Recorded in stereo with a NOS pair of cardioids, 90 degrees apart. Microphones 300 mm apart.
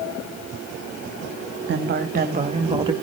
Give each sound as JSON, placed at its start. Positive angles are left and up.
{"t": 1.6, "sound": "a woman speaking", "azimuth_deg": -40, "distance_m": 1.7}